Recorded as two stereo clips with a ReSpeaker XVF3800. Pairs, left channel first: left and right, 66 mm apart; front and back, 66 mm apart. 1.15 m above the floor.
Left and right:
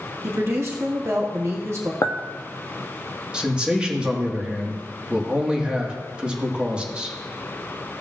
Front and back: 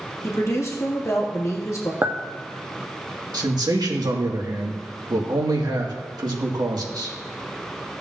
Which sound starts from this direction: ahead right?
A woman speaking, at 0.2 s.